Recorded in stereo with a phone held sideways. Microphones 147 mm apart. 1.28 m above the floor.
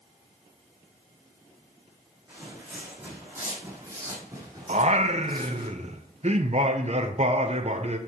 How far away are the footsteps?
About 4 m.